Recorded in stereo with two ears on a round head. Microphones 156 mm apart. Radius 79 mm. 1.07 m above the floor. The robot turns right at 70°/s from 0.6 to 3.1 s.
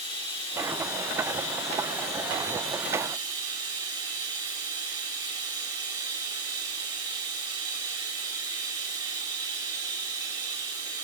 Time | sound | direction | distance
0.0 | running water | 35° left | 7 m